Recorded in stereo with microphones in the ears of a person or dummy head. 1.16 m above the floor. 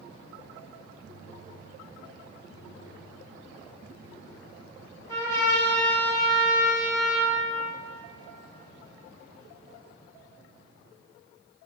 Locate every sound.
5.1 s a trumpet: 15° left (ahead or behind), 1.2 m